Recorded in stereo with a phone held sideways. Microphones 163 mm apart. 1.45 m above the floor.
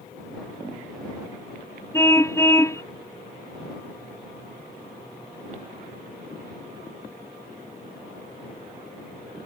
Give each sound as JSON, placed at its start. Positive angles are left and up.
{"t": 1.9, "sound": "a car horn", "side_deg": 15}